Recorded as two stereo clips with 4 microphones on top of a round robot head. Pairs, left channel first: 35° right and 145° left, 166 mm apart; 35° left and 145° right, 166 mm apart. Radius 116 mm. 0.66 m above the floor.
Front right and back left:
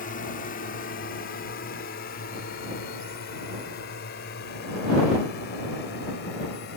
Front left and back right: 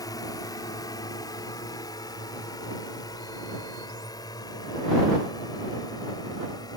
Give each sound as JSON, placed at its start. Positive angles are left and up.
{"t": 0.0, "sound": "a drone", "azimuth_deg": -30}